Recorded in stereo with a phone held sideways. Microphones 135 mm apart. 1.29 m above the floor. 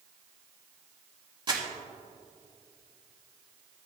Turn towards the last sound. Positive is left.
turn(degrees=-35)  # may be behind; listen again after turning